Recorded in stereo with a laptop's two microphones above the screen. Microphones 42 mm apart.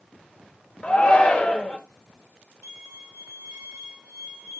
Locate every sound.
0.8 s a shout: 25° left (ahead or behind), 1.0 m
2.6 s a violin: 85° right, 1.5 m